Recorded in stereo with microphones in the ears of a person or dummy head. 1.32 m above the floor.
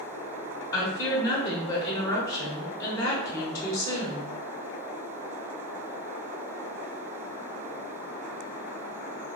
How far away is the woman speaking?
About 0.9 m.